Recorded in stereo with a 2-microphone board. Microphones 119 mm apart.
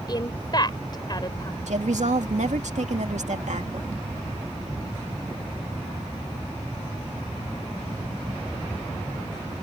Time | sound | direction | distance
0.1 | a woman speaking | 35° left (ahead or behind) | ?
1.7 | a woman speaking | 80° right | ?